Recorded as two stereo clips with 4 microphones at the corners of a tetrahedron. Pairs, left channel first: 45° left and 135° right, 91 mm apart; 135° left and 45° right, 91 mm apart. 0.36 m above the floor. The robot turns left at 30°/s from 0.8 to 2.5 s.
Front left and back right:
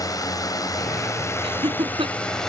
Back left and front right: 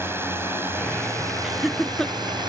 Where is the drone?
15° left; by 2.5 s 40° right.